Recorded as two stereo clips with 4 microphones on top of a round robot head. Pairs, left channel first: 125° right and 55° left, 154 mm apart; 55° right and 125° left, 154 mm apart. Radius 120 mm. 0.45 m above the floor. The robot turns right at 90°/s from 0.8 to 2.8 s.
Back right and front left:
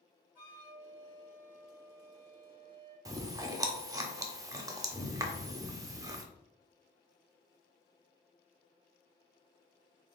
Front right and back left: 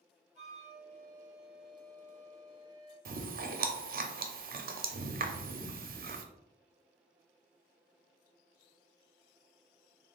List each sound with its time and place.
0.3 s a flute: 165° left, 2.0 m; by 3.0 s 15° right, 2.0 m
3.0 s chewing: 125° left, 0.7 m